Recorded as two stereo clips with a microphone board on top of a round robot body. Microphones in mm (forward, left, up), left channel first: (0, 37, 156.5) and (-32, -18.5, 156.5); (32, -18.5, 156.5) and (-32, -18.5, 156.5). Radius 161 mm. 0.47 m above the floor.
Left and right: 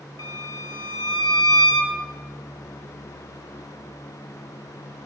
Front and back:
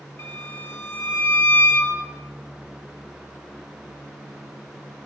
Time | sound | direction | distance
0.2 | a violin | 50° left | 3.5 m